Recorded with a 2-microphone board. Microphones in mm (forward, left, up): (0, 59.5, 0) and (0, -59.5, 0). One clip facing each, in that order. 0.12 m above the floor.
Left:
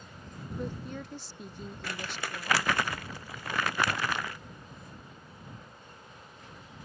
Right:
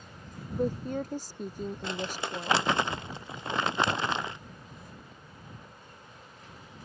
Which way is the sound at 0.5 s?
45° right (ahead or behind).